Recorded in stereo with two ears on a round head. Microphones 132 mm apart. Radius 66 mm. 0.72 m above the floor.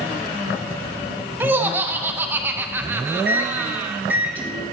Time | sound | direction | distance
1.4 | laughter | 15° right (ahead or behind) | 0.6 m
3.2 | a microwave | 15° right (ahead or behind) | 1.2 m